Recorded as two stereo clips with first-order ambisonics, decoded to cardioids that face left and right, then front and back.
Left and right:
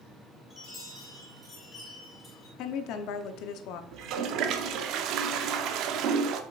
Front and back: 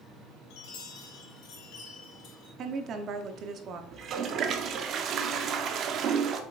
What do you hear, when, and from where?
0.5 s a chime: 10° left, 4 m
2.6 s a woman speaking: 125° left, 0.8 m
3.9 s a toilet flushing: 130° right, 0.6 m